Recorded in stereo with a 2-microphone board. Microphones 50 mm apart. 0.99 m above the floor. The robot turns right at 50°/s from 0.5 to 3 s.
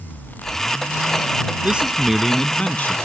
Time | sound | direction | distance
1.6 | a man speaking | 30° right | ?